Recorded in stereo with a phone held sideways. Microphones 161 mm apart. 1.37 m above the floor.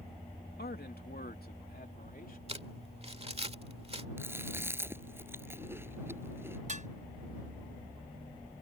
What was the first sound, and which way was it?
A man speaking, 80° left.